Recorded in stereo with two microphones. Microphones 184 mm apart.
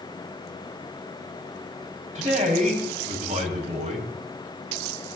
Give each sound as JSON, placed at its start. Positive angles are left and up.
{"t": 2.1, "sound": "a man speaking", "side_deg": -40, "distance_m": 5.5}